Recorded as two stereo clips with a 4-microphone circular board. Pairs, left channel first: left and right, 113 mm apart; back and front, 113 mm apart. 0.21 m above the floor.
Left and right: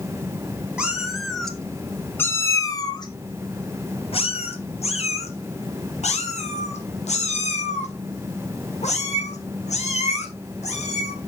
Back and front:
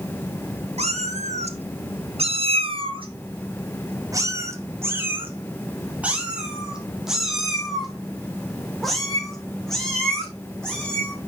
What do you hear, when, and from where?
0.8 s a cat meowing: 10° right, 1.7 m; by 11.1 s 95° left, 5 m